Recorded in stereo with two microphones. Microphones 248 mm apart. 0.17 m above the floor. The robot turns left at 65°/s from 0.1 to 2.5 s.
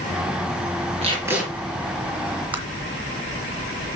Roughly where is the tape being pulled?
Behind right.